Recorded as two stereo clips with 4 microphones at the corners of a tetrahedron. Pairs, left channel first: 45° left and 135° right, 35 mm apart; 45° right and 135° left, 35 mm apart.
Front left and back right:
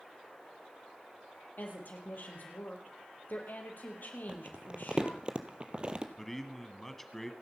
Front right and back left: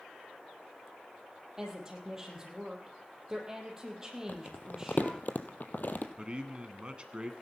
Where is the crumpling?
75° right, 1.4 m.